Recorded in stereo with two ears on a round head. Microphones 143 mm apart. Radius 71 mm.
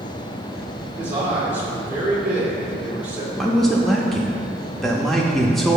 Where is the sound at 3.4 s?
Centre (ahead or behind), 0.5 m.